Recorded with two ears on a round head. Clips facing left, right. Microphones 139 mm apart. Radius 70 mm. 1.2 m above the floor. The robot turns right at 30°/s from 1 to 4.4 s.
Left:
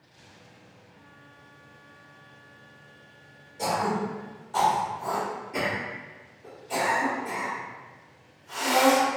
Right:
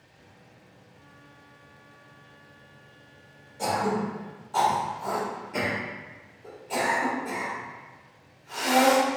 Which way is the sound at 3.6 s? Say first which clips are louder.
Even; 20° left (ahead or behind).